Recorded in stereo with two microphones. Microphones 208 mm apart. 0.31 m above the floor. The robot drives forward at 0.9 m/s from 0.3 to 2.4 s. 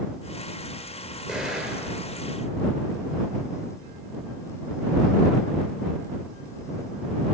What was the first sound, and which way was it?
An explosion, 5° right (ahead or behind).